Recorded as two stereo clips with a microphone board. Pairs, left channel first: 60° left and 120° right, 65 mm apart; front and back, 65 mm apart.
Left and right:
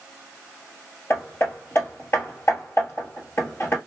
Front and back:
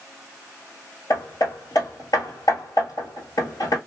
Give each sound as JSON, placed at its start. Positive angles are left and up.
{"t": 1.1, "sound": "hammering", "azimuth_deg": 15, "distance_m": 1.1}